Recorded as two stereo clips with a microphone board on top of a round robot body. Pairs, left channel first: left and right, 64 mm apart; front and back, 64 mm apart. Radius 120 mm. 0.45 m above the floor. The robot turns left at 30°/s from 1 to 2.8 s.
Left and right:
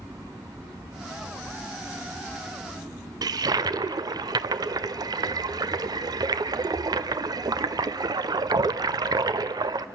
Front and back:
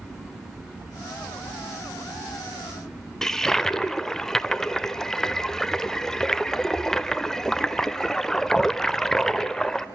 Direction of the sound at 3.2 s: 85° right.